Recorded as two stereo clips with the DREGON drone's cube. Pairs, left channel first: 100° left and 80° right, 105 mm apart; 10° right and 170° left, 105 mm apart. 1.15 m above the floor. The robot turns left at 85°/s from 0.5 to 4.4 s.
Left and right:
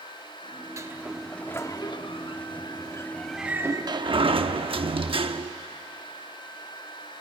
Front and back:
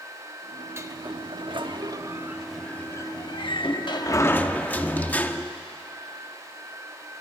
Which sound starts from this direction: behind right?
A sliding door, at 0.8 s.